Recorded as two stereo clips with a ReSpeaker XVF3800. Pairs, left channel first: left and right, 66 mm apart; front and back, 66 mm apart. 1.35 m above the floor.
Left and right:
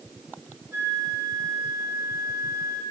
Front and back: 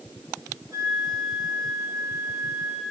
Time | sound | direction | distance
0.7 | a flute | 135° right | 4 m